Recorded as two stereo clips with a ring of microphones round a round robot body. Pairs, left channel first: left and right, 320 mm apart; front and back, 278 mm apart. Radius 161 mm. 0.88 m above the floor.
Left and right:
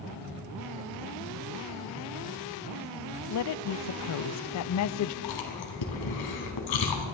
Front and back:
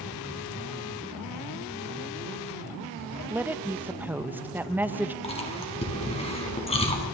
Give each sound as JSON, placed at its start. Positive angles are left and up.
{"t": 3.3, "sound": "a woman speaking", "azimuth_deg": 100, "distance_m": 0.5}
{"t": 5.2, "sound": "chewing", "azimuth_deg": 70, "distance_m": 2.5}